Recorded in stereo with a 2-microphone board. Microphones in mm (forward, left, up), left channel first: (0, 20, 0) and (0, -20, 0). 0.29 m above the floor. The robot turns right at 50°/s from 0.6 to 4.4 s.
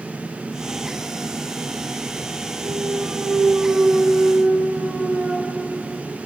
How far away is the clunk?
About 9 m.